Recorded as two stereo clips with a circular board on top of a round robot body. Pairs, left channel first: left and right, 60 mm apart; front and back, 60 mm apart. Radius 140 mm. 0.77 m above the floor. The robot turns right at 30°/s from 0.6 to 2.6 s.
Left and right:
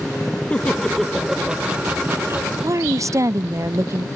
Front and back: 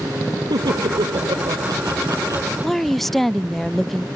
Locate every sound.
0.5 s laughter: 165° left; by 2.5 s 140° right
2.6 s a woman speaking: 85° right